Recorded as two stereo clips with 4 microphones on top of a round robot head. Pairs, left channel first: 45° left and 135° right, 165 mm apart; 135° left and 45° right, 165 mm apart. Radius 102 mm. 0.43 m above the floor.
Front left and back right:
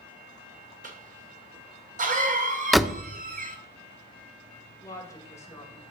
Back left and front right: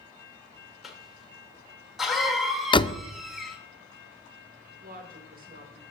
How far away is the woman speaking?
About 2.5 m.